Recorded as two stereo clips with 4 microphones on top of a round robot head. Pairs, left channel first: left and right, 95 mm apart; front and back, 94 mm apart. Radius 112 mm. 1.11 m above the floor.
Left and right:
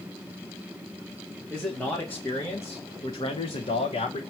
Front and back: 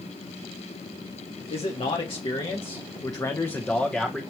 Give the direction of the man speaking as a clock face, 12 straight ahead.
12 o'clock.